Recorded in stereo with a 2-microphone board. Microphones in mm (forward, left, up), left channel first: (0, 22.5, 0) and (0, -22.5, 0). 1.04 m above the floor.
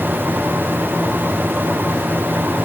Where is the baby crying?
I don't hear a baby crying.